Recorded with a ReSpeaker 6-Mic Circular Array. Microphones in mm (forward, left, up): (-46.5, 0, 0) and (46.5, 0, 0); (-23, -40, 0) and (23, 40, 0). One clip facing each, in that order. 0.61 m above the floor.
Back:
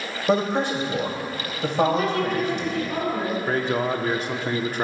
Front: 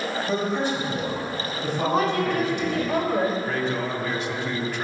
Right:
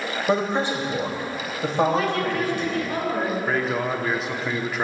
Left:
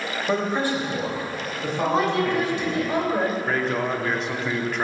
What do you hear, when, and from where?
0.3 s a man speaking: 170° left, 2.5 m; by 2.8 s 160° right, 3 m
1.8 s a woman speaking: 5° right, 2.5 m
3.5 s a man speaking: 155° left, 1.0 m